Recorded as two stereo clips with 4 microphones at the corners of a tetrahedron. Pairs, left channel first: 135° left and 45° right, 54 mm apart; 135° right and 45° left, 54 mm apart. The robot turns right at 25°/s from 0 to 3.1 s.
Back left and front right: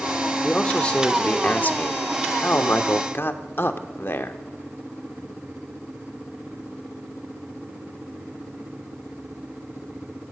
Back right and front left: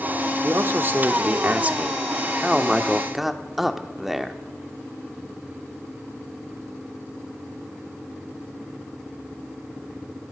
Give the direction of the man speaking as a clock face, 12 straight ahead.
10 o'clock.